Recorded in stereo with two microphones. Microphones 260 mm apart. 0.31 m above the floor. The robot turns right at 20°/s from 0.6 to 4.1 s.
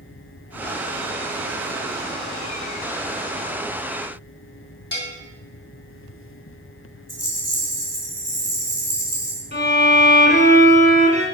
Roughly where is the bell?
Left.